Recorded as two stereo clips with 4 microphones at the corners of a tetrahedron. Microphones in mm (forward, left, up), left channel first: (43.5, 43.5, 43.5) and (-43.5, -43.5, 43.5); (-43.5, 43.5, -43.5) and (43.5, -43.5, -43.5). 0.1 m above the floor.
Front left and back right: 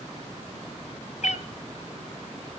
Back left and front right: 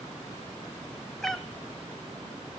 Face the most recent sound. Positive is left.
turn(degrees=50)